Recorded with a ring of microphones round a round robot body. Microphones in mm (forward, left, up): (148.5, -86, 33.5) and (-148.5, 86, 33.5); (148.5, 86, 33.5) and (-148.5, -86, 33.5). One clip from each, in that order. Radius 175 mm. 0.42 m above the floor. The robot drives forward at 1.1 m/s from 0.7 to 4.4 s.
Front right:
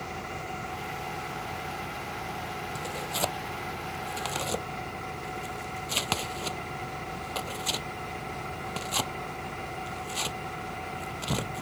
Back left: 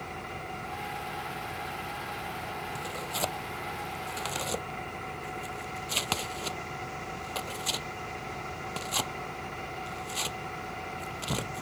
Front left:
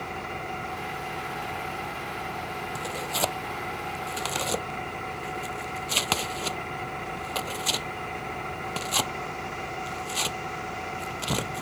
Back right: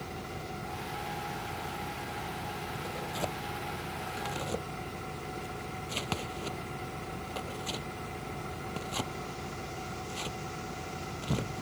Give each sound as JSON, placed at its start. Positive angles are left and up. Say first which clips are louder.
{"t": 0.0, "sound": "an engine running", "louder": "front right 2 dB, front left 7 dB", "azimuth_deg": 65}
{"t": 2.8, "sound": "tearing paper", "louder": "front right 3 dB, front left 9 dB", "azimuth_deg": 65}